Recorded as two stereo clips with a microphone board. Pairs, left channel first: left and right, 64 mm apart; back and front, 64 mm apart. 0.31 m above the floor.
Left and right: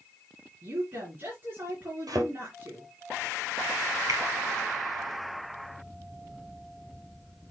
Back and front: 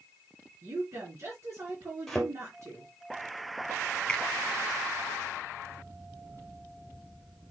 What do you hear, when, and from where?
0.6 s a woman speaking: 45° right, 4.5 m
2.1 s a thud: 90° right, 3 m
4.1 s a finger snap: 100° right, 2.5 m